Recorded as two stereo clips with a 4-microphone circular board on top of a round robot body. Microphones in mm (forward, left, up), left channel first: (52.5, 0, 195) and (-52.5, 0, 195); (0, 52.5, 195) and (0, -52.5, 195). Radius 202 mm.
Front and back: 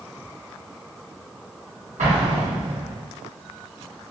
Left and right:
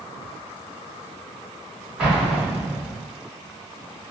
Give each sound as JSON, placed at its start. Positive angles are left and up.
{"t": 2.0, "sound": "an explosion", "azimuth_deg": -175, "distance_m": 1.0}